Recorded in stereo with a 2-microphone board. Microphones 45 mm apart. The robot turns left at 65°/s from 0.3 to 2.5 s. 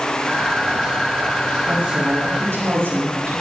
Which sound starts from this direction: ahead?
A woman speaking, at 1.7 s.